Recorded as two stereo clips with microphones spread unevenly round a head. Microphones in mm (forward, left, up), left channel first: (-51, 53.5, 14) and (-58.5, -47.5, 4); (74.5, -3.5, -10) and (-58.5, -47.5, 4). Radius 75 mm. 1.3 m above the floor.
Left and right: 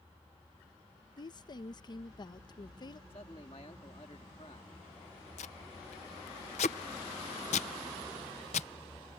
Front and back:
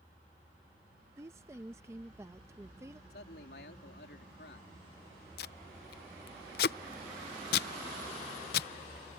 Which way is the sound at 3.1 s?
30° left.